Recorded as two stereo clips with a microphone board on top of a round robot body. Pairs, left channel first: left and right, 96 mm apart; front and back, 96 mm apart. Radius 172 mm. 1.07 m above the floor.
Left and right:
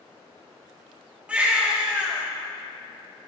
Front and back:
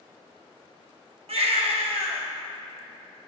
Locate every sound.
1.3 s a baby crying: 170° right, 1.1 m